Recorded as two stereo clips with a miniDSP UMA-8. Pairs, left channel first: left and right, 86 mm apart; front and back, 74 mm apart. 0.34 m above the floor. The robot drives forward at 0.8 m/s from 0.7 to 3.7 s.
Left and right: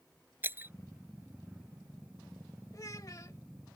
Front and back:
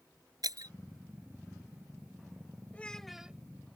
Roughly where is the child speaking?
Ahead left.